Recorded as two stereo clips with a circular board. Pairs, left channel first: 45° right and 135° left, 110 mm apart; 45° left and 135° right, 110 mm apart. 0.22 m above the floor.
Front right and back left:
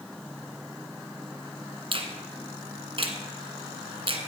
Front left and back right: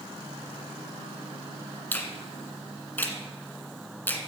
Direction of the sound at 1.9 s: 115° left.